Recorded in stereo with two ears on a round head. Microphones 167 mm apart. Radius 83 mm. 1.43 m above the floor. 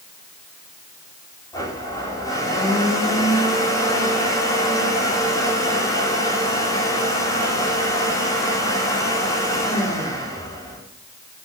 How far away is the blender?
About 4.5 m.